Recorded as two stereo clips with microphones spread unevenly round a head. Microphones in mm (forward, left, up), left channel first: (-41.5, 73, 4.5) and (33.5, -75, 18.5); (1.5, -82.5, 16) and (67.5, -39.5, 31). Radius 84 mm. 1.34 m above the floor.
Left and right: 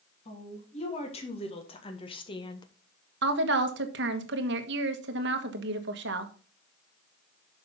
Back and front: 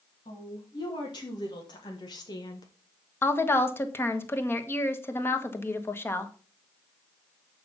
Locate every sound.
0.2 s a woman speaking: 170° left, 3 m; by 2.7 s straight behind, 1.0 m
3.2 s a woman speaking: 85° right, 1.5 m